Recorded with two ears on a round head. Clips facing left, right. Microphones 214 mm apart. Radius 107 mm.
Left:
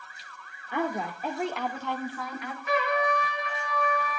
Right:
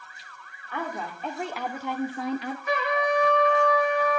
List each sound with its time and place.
0.7 s a woman speaking: 15° left (ahead or behind), 1.6 m; by 2.6 s 30° right (ahead or behind), 1.2 m
2.7 s a trumpet: 80° right, 5.5 m